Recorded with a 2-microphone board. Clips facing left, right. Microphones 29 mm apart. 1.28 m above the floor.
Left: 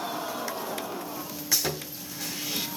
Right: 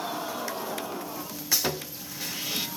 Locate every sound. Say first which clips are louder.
1.5 s sawing: right 1 dB; 25° right (ahead or behind), 1.3 m